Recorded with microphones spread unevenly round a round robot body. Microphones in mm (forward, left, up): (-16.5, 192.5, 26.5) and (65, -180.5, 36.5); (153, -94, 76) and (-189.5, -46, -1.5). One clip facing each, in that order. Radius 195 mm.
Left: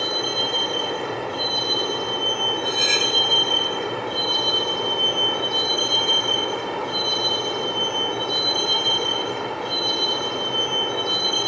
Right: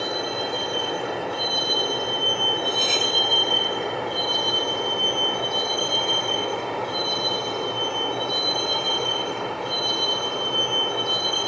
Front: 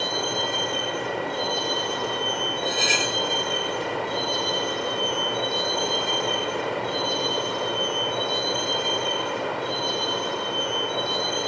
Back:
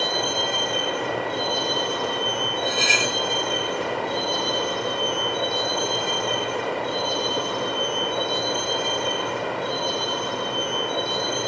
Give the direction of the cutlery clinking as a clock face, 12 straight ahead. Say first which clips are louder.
Left 1 dB, back 1 dB; 5 o'clock.